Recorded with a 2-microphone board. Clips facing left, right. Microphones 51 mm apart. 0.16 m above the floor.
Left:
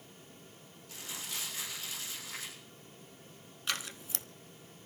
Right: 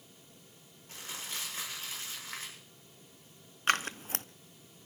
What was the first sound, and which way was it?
Crumpling, 40° right (ahead or behind).